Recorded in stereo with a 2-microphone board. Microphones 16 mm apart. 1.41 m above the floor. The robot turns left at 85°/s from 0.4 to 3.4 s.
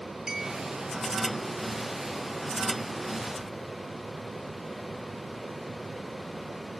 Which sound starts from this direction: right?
A clink, at 0.3 s.